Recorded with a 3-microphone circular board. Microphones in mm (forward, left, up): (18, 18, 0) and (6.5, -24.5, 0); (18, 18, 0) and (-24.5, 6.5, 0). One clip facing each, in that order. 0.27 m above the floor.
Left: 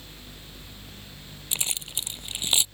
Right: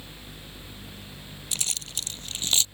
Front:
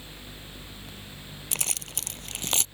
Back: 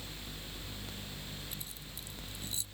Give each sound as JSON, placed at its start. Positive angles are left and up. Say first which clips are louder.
{"t": 1.5, "sound": "keys jangling", "louder": "left 1 dB, front 11 dB", "azimuth_deg": 5}